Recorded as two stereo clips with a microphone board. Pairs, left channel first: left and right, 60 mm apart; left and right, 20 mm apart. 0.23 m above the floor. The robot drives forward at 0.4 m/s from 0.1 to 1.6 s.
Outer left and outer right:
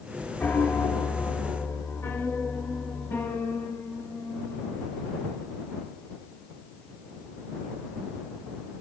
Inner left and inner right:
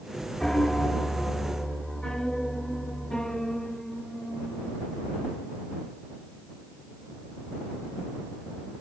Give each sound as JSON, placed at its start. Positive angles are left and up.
{"t": 0.4, "sound": "a piano", "side_deg": 35, "distance_m": 2.0}